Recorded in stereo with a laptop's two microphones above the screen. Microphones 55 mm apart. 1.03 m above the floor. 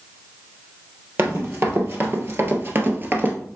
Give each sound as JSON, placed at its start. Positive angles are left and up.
{"t": 1.2, "sound": "running footsteps", "side_deg": -45, "distance_m": 1.7}